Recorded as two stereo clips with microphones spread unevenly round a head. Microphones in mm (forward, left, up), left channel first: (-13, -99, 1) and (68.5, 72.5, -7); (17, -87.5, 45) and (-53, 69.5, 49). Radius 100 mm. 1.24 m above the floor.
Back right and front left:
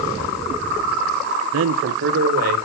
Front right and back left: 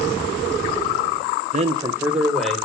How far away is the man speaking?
About 0.6 m.